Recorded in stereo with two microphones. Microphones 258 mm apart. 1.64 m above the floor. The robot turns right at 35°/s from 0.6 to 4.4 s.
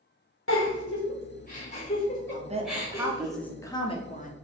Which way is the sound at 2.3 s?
35° right.